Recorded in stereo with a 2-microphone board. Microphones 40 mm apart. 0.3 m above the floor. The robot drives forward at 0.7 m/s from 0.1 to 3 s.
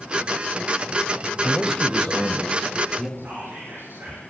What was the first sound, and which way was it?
A man speaking, 10° left (ahead or behind).